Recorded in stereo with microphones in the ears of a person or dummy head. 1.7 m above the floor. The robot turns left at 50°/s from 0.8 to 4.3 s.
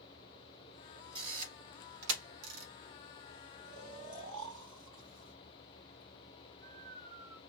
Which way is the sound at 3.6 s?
35° right (ahead or behind).